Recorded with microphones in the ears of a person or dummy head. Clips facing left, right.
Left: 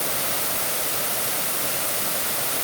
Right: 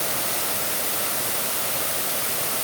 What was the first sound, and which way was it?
Only background noise.